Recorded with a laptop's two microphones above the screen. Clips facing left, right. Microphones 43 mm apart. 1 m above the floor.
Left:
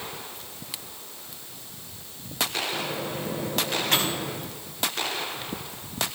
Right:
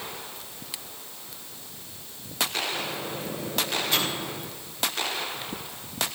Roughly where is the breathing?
I don't hear breathing.